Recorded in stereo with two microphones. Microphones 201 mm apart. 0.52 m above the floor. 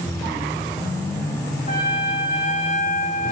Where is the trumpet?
40° left (ahead or behind), 1.9 m.